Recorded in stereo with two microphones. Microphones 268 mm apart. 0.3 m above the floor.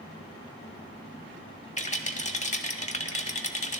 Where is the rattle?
25° left (ahead or behind), 0.8 m.